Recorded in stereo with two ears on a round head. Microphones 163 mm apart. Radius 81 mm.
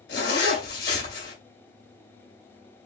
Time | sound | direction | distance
0.1 | a zipper | 70° left (ahead or behind) | 2.5 m